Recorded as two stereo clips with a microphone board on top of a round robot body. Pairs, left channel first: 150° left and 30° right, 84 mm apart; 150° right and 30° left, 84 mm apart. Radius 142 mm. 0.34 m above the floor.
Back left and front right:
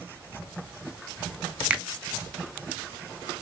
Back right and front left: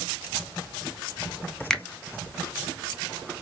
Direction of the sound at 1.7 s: 85° right.